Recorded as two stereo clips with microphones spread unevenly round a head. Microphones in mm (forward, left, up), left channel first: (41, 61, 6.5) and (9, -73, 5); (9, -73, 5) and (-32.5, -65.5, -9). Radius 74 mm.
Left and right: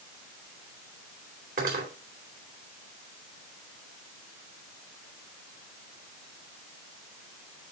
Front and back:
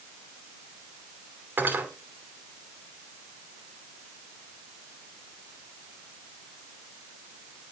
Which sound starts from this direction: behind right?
Cutlery clinking, at 1.6 s.